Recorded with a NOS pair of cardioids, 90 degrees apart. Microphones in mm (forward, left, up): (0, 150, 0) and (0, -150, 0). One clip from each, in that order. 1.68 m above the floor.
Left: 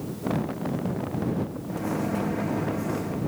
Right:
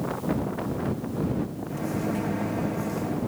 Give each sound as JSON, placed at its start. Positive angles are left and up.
{"t": 1.7, "sound": "a microwave", "azimuth_deg": 0}